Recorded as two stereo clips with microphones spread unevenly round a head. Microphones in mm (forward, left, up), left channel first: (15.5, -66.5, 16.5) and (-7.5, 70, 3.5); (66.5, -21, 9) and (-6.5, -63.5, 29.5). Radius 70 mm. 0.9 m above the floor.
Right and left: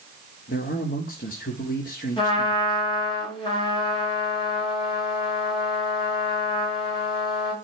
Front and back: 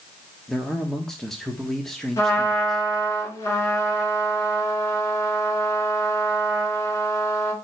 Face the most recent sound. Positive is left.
turn(degrees=-25)